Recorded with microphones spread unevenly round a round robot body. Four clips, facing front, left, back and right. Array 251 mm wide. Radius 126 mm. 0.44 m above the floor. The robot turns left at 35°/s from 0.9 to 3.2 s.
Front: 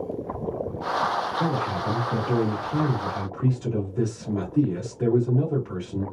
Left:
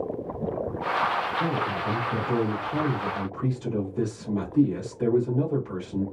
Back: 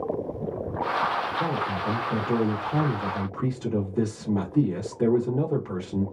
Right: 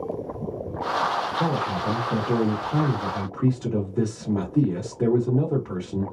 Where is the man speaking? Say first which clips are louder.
Right 2 dB, front 1 dB; 65° right, 1.2 m; by 6.0 s 130° right, 1.2 m.